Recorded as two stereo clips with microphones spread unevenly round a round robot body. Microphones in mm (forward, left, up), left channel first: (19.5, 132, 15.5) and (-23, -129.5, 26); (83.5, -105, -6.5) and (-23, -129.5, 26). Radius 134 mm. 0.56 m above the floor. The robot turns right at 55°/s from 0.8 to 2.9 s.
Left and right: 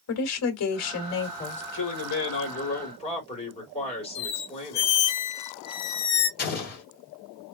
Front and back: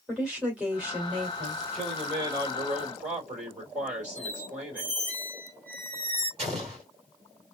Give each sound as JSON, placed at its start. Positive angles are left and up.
{"t": 0.1, "sound": "a woman speaking", "azimuth_deg": 100, "distance_m": 1.7}
{"t": 1.7, "sound": "a man speaking", "azimuth_deg": 85, "distance_m": 2.5}
{"t": 4.2, "sound": "a squeak", "azimuth_deg": 115, "distance_m": 0.8}
{"t": 6.4, "sound": "an explosion", "azimuth_deg": 130, "distance_m": 2.5}